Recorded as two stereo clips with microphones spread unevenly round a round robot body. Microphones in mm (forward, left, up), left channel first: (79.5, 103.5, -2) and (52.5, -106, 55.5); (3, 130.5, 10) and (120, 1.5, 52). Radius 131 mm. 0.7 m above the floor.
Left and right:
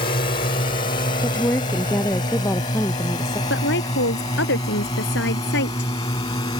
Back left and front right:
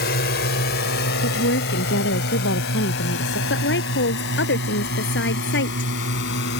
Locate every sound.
0.0 s a drone: 145° left; by 6.6 s 155° left
1.2 s a woman speaking: 165° left
3.5 s a woman speaking: 130° left